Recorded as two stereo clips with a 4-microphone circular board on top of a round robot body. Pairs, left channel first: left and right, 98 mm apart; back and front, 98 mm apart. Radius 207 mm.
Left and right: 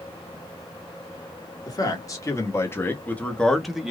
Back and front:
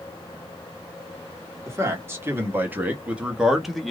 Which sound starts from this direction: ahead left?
A man speaking, at 1.7 s.